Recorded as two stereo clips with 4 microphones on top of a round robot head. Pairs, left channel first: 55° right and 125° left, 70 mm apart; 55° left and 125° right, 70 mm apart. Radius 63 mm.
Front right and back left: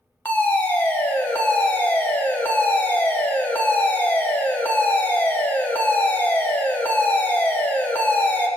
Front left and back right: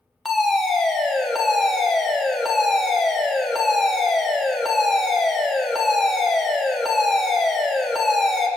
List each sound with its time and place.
0.2 s a fire alarm: 35° right, 1.4 m